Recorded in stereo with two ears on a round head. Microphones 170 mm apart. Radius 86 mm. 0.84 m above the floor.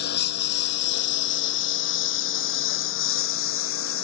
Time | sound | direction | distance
0.0 | a lawn mower | 60° left (ahead or behind) | ?